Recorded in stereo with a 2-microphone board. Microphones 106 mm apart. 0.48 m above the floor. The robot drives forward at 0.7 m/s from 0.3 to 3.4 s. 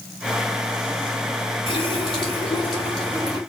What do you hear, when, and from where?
1.7 s a running tap: 50° left (ahead or behind), 5 m; by 3.4 s 40° left (ahead or behind), 6 m